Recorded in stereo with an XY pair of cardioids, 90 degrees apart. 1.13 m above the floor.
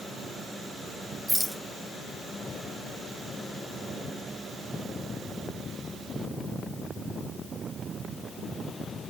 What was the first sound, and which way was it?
A rattle, 10° right.